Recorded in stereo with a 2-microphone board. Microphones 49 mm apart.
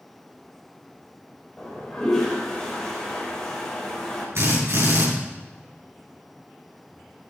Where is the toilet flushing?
5° left (ahead or behind), 4 m.